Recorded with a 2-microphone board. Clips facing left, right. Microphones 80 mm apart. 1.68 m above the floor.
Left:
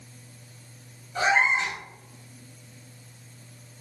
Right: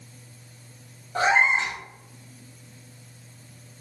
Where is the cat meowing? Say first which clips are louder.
Right 2 dB; 45° right (ahead or behind), 1.6 m.